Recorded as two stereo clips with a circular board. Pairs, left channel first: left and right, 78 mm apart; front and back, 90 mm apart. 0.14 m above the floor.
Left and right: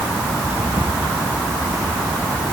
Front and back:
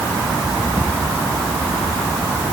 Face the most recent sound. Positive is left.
No sound to turn to.